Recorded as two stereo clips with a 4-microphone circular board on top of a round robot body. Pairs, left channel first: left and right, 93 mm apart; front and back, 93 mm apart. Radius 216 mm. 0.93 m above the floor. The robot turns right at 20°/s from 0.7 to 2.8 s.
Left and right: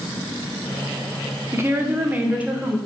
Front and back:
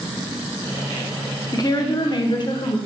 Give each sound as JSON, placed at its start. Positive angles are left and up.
{"t": 1.5, "sound": "a woman speaking", "azimuth_deg": -35, "distance_m": 0.8}